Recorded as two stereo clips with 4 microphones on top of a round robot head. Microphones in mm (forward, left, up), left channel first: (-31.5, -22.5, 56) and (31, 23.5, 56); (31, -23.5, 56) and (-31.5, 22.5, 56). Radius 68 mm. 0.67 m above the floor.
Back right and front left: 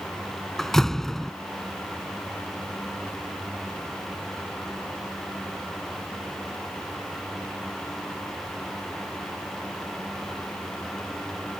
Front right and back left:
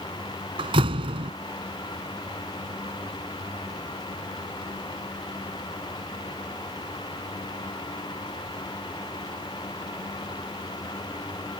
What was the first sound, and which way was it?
A door slam, 130° left.